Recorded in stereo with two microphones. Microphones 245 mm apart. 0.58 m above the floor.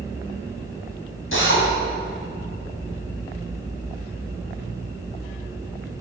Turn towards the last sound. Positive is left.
turn(degrees=60)  # may be behind; listen again after turning